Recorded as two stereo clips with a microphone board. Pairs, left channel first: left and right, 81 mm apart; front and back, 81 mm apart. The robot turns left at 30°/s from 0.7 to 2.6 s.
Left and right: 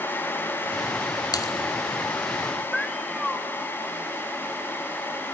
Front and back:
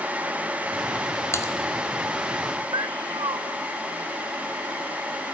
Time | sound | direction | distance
1.3 | typing on a keyboard | 55° left | 1.3 m
2.7 | a cat meowing | straight behind | 1.0 m